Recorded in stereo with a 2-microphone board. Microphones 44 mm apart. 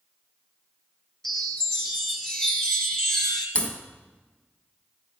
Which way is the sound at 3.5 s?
30° left (ahead or behind).